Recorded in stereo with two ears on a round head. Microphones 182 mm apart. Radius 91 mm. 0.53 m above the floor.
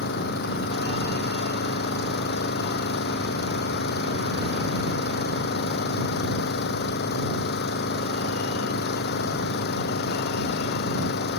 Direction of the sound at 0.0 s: 55° left (ahead or behind).